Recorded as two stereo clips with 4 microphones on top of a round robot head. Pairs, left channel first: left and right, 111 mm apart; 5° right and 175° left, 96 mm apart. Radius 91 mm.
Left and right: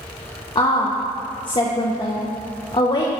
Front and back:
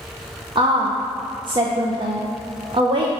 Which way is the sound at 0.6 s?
135° left.